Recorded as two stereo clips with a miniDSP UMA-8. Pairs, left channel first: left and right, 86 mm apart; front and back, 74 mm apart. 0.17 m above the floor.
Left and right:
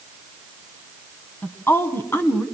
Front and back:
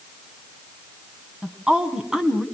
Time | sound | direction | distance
1.4 | a woman speaking | 110° left | 1.8 m